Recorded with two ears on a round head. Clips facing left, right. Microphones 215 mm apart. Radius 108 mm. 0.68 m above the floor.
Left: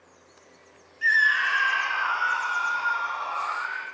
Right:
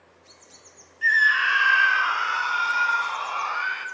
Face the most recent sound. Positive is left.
turn(degrees=-55)  # may be behind; listen again after turning